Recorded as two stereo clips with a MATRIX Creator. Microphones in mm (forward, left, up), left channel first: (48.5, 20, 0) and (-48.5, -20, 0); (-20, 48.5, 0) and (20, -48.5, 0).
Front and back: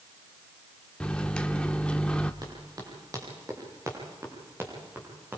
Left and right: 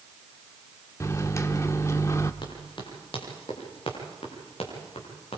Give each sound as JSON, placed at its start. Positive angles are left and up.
{"t": 1.0, "sound": "a microwave", "azimuth_deg": 95, "distance_m": 1.0}
{"t": 2.4, "sound": "running footsteps", "azimuth_deg": 150, "distance_m": 8.5}